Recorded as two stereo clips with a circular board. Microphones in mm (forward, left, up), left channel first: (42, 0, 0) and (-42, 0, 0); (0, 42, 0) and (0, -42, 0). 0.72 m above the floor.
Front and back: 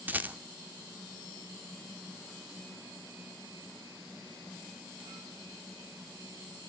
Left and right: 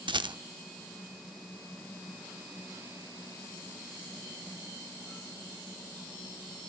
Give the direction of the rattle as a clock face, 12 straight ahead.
4 o'clock.